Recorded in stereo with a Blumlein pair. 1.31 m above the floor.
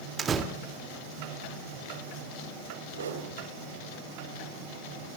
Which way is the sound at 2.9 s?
65° right.